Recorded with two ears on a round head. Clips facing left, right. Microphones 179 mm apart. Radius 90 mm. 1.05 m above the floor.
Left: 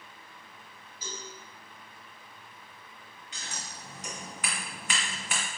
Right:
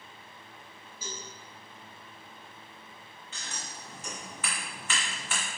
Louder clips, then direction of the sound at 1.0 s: Even; 75° right (ahead or behind).